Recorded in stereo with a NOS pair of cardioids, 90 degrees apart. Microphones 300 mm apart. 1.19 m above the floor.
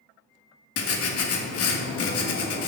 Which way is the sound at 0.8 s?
55° left.